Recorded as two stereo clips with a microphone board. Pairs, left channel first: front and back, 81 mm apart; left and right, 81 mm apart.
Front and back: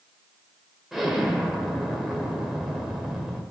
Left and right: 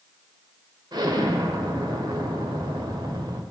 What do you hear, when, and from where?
0.9 s an explosion: 95° right, 1.8 m